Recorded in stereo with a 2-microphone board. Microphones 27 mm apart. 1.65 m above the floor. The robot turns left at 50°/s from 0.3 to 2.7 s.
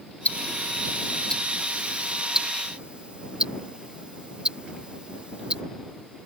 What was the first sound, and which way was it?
Ticking, 70° left (ahead or behind).